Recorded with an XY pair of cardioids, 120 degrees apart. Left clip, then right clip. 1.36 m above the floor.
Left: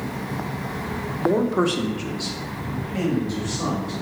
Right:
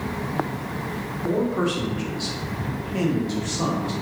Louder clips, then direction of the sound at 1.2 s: Left 3 dB; 45° left.